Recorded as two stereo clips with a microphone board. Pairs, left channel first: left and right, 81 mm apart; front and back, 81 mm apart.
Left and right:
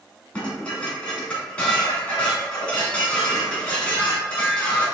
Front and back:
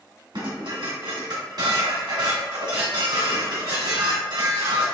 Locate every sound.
0.3 s dishes clattering: 165° left, 2 m